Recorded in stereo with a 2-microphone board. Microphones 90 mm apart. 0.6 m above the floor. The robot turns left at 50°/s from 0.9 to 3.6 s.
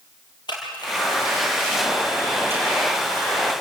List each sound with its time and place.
0.5 s a camera shutter: 55° left (ahead or behind), 6.5 m; by 3.0 s 55° right (ahead or behind), 6.5 m